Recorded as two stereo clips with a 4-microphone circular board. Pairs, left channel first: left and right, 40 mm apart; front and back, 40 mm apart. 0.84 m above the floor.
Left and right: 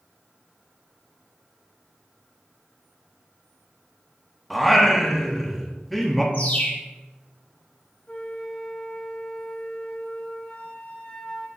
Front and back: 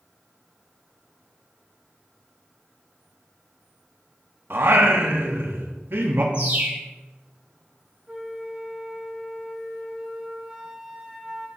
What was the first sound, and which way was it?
Singing, straight behind.